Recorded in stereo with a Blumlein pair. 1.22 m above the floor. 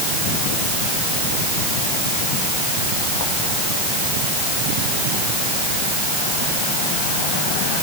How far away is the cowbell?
No cowbell in this recording.